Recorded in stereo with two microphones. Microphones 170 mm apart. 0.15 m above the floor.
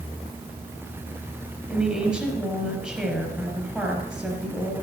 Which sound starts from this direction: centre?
A woman speaking, at 1.7 s.